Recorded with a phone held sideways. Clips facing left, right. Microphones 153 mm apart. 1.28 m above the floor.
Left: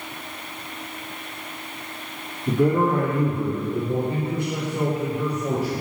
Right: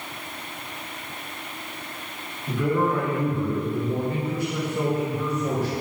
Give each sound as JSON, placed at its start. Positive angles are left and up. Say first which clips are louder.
{"t": 2.5, "sound": "a man speaking", "louder": "left 4 dB", "side_deg": 50, "distance_m": 1.7}